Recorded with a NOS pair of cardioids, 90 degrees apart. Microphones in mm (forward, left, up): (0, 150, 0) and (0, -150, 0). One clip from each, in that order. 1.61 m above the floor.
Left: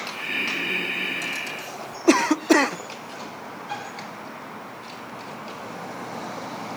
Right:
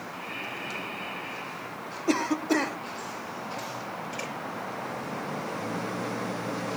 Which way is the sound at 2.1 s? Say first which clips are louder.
Left 8 dB; 45° left.